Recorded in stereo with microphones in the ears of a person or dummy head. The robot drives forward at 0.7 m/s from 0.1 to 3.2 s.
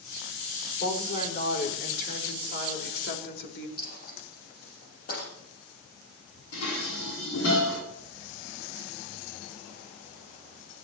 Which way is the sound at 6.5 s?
80° left.